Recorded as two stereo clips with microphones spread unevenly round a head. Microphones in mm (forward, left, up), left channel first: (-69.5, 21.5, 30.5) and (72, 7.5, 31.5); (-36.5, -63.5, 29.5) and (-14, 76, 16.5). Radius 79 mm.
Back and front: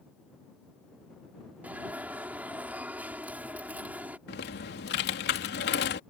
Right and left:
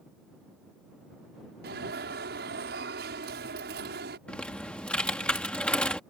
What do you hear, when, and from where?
1.6 s an alarm: 75° left
4.3 s typing on a keyboard: straight behind